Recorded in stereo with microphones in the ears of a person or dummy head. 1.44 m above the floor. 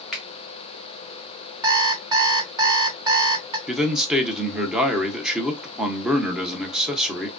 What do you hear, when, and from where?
0.1 s a finger snap: centre (ahead or behind), 1.5 m
1.6 s an alarm clock: 30° right (ahead or behind), 1.6 m
3.7 s a man speaking: 5° right (ahead or behind), 0.8 m